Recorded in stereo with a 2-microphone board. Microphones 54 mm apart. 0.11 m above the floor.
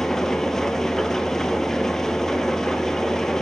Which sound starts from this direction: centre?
An engine running, at 0.0 s.